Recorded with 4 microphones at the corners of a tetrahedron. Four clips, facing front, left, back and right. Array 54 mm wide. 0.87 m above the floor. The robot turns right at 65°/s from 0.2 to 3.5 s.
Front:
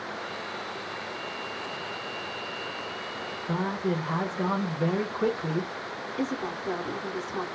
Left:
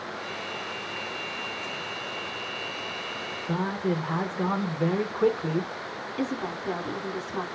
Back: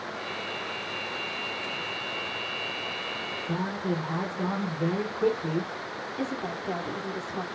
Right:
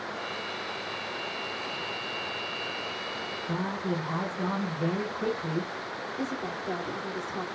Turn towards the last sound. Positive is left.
turn(degrees=55)